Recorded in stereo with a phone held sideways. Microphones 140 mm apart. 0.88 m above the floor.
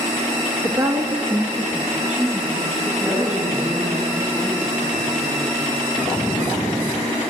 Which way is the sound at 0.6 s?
30° right (ahead or behind).